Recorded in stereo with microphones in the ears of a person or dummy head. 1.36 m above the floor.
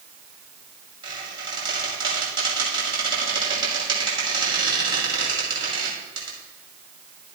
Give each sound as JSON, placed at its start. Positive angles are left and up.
{"t": 1.0, "sound": "a squeak", "side_deg": -30, "distance_m": 5.5}